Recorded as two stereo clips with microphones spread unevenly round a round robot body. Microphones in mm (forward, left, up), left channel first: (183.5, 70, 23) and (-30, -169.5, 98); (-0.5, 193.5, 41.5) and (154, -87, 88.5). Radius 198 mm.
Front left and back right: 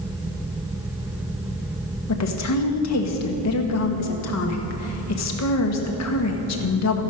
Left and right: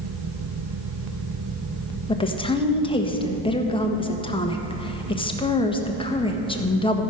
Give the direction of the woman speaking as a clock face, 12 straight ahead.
10 o'clock.